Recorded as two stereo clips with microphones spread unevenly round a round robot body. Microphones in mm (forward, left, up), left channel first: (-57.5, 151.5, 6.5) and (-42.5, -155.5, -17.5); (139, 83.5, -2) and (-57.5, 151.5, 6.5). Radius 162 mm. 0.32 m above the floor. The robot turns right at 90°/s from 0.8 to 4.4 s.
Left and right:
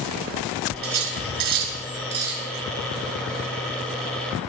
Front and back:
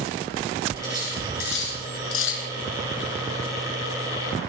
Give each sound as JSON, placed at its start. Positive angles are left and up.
{"t": 0.8, "sound": "cutlery clinking", "azimuth_deg": -135, "distance_m": 2.5}